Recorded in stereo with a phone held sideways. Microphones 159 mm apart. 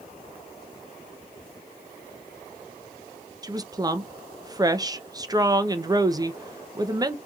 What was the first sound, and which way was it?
A woman speaking, 25° right (ahead or behind).